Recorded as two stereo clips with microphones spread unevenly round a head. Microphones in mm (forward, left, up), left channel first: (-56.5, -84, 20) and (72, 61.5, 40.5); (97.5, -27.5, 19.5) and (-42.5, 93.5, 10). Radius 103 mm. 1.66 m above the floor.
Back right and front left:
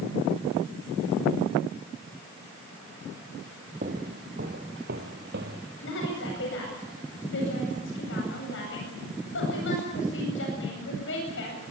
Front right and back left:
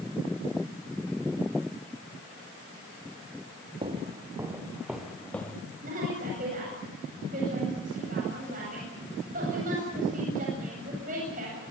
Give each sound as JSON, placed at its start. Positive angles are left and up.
{"t": 3.8, "sound": "footsteps", "azimuth_deg": 85, "distance_m": 2.5}
{"t": 5.8, "sound": "a woman speaking", "azimuth_deg": -165, "distance_m": 9.0}